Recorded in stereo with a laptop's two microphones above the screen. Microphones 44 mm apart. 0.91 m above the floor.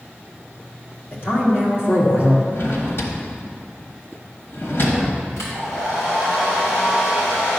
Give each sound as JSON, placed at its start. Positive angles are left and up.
{"t": 1.1, "sound": "a man speaking", "side_deg": 55, "distance_m": 1.6}
{"t": 2.5, "sound": "a drawer", "side_deg": 60, "distance_m": 1.2}
{"t": 5.4, "sound": "a hair dryer", "side_deg": 80, "distance_m": 3.0}